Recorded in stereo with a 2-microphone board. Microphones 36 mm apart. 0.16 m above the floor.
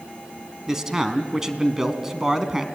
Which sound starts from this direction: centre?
A man speaking, at 0.7 s.